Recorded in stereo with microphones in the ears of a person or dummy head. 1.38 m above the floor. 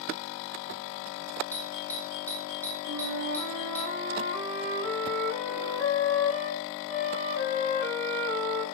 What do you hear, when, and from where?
1.5 s a doorbell: 10° left (ahead or behind), 2.5 m
2.9 s a flute: 40° right (ahead or behind), 8 m